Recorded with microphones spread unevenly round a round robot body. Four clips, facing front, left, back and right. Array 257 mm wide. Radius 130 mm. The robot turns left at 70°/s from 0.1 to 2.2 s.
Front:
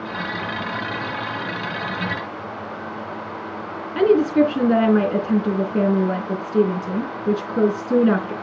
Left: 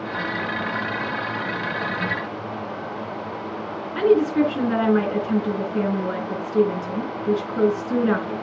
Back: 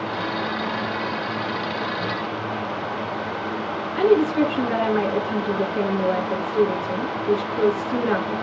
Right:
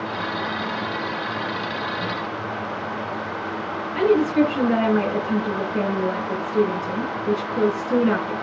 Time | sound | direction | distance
4.0 | a woman speaking | 5° left | 4 m